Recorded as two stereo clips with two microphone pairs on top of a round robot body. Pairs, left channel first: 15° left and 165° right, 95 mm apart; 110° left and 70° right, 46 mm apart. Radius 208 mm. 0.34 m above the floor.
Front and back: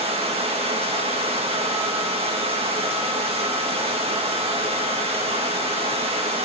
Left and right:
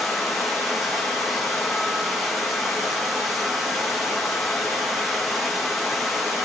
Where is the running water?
155° right, 3 m.